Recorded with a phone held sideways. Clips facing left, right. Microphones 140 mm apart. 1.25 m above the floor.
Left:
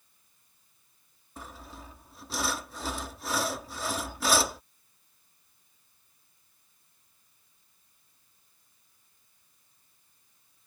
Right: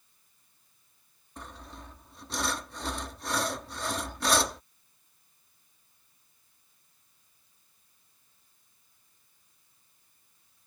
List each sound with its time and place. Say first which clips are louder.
1.4 s sawing: even; 5° left (ahead or behind)